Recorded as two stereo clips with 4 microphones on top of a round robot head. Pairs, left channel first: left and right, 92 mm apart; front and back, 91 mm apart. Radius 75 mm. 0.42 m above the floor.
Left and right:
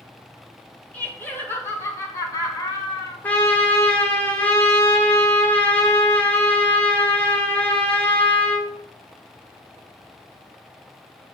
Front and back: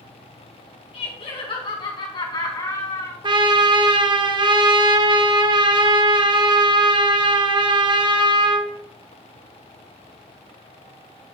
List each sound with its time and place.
0.9 s laughter: 15° left, 3.5 m; by 3.1 s 50° left, 4 m
3.2 s a trumpet: 165° left, 1.2 m